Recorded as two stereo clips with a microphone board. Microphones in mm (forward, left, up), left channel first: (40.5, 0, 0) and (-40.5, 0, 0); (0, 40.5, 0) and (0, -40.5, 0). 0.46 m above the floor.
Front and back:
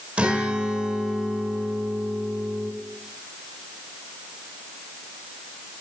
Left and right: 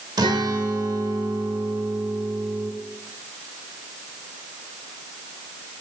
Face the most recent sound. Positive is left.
turn(degrees=-110)